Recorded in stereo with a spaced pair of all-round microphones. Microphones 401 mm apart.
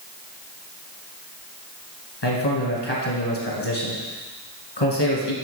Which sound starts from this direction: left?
A man speaking, at 2.2 s.